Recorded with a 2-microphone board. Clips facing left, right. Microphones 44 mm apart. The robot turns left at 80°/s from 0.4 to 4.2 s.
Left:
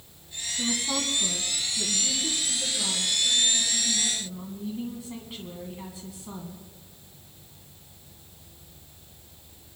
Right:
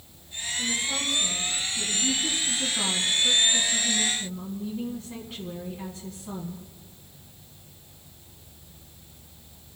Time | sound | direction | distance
0.6 | a woman speaking | 105° left | 1.8 m